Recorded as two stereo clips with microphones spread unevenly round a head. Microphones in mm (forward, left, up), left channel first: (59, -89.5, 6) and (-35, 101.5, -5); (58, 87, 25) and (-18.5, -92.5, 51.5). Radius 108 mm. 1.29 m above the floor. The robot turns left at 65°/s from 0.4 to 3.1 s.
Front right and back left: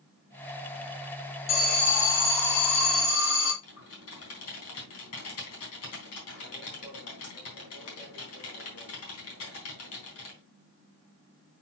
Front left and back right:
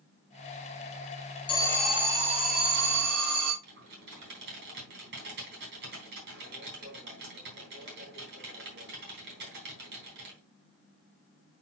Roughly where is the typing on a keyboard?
Right.